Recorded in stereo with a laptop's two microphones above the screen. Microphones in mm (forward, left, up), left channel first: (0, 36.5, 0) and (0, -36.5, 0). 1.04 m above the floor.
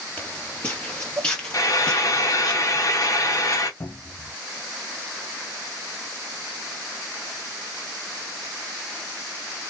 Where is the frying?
45° left (ahead or behind), 0.8 m.